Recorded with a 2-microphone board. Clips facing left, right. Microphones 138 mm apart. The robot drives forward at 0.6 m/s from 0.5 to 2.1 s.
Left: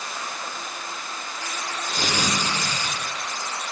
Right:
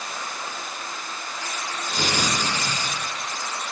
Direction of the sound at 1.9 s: 35° right (ahead or behind).